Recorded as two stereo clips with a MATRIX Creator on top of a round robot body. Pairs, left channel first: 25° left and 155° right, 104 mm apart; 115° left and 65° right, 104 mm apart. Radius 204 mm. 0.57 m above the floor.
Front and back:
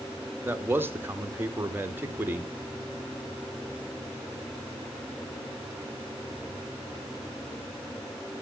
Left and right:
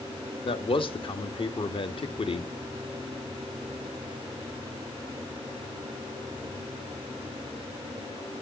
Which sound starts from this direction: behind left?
A man speaking, at 0.5 s.